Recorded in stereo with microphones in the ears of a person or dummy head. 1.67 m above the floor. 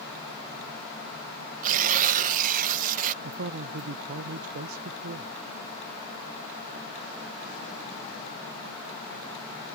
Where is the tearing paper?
45° right (ahead or behind).